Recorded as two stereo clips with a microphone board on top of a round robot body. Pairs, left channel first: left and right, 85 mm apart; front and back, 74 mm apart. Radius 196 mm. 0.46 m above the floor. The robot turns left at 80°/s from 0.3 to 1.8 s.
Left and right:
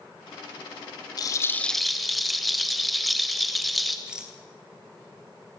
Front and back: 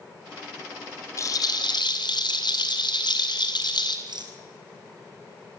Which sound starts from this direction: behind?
A rattle, at 4.1 s.